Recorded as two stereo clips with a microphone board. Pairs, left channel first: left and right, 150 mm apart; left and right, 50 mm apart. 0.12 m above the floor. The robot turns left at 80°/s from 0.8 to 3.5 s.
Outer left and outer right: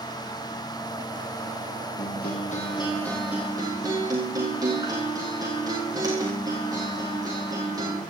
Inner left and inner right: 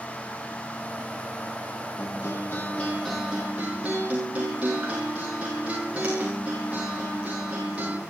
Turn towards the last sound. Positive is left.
turn(degrees=-25)